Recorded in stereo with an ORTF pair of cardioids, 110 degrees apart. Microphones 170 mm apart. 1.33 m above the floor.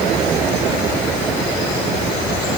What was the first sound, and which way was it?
Only background noise.